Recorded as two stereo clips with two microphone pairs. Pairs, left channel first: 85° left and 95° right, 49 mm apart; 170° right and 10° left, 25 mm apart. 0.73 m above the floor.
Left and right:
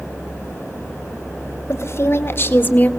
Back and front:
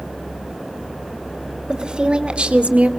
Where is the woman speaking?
65° left, 2.5 m; by 2.9 s 30° left, 1.5 m.